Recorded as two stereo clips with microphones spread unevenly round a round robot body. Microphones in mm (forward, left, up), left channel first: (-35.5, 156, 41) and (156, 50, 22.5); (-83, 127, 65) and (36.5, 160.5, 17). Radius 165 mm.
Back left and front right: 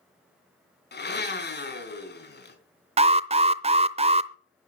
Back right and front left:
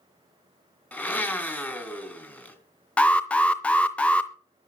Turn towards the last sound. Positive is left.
turn(degrees=-60)